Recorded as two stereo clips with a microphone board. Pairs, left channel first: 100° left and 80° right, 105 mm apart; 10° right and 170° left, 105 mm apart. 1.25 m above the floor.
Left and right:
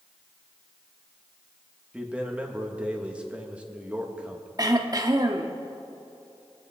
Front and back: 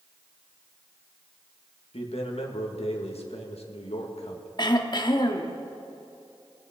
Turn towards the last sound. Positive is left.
turn(degrees=-35)